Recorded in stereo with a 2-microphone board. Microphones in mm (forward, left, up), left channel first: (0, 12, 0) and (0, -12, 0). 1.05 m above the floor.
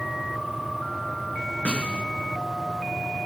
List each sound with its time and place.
1.6 s a snare drum: 65° left (ahead or behind), 3.5 m